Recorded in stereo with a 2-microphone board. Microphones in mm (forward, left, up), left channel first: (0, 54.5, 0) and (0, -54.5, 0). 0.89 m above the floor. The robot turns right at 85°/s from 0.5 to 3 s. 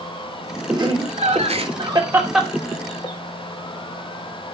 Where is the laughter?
35° right (ahead or behind), 3 m; by 3.1 s 50° left (ahead or behind), 3 m.